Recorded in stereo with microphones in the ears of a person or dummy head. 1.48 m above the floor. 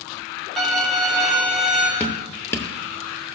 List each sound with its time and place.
0.6 s a violin: 5° left (ahead or behind), 2 m
2.0 s dripping: 10° left (ahead or behind), 0.9 m